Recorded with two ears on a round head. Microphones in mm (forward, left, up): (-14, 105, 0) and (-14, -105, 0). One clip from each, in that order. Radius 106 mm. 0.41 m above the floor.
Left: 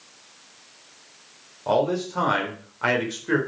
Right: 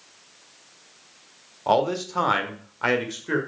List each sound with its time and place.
1.7 s a man speaking: 35° right (ahead or behind), 1.2 m; by 3.4 s centre (ahead or behind), 1.4 m